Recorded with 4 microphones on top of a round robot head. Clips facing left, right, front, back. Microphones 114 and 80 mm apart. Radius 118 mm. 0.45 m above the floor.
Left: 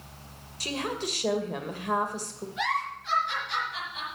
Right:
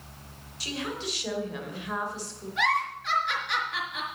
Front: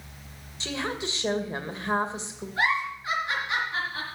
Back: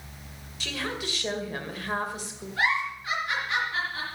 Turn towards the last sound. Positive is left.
turn(degrees=-65)